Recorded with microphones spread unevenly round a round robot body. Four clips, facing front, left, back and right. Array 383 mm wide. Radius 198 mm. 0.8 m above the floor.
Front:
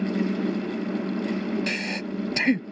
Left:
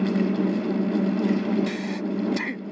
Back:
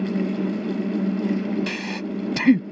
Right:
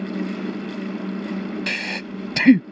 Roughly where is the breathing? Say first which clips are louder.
Left 3 dB, back 2 dB; right.